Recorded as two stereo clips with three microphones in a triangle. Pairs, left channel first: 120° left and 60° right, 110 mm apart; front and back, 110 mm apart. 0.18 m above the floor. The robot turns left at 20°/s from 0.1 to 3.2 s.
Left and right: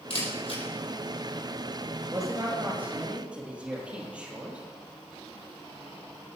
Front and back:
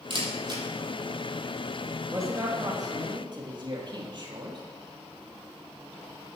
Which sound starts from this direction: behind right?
A man speaking, at 2.1 s.